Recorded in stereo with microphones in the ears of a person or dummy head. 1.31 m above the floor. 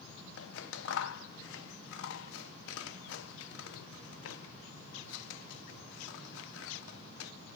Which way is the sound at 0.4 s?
70° left (ahead or behind).